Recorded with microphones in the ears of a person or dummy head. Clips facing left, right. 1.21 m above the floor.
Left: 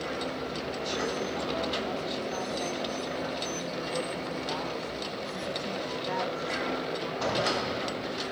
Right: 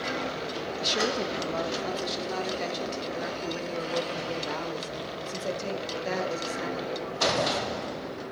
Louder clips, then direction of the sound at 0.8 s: Right 4 dB; 50° right (ahead or behind).